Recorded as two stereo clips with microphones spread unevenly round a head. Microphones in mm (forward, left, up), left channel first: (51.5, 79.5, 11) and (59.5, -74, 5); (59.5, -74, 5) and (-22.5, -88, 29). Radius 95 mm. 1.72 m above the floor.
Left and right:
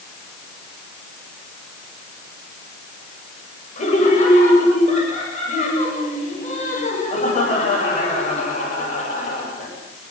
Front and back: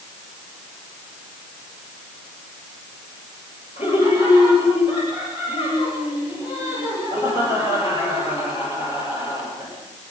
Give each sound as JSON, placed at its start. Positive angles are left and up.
{"t": 3.8, "sound": "laughter", "azimuth_deg": 50, "distance_m": 9.0}